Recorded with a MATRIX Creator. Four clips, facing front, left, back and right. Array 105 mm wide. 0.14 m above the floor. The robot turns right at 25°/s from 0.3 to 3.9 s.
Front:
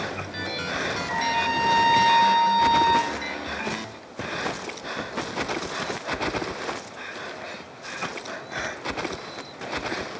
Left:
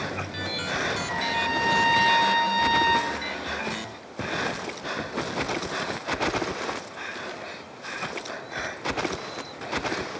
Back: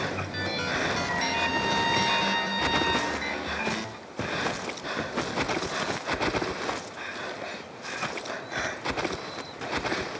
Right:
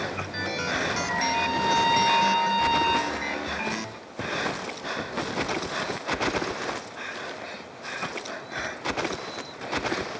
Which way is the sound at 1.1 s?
10° left.